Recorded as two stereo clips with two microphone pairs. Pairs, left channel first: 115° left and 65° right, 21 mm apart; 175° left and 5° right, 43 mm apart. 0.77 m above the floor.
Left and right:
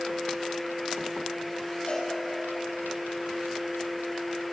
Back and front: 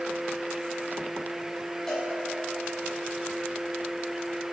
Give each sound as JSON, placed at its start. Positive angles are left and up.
{"t": 1.9, "sound": "a cowbell", "azimuth_deg": 105, "distance_m": 5.5}